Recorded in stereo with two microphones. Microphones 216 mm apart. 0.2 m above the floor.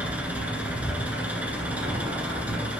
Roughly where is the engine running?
Centre.